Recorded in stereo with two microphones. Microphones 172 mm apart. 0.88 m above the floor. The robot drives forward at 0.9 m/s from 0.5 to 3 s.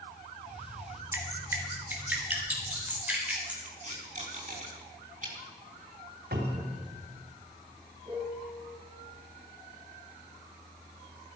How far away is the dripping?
About 2.5 m.